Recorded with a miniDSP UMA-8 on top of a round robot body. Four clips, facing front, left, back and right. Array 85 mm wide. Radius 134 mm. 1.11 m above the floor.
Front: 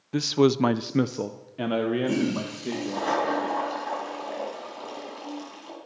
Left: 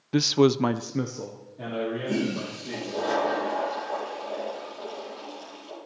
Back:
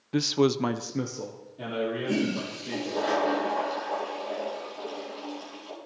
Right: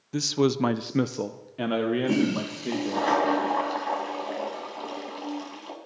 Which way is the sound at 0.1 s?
95° left.